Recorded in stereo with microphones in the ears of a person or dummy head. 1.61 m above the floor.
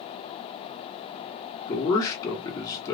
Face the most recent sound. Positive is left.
turn(degrees=20)  # may be behind; listen again after turning